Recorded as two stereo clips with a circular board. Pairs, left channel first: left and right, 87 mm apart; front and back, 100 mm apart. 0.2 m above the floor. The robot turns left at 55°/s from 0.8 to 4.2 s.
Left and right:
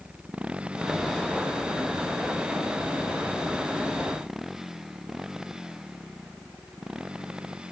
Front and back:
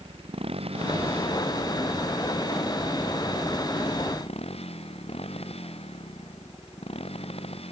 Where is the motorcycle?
165° right; by 7.7 s 10° right.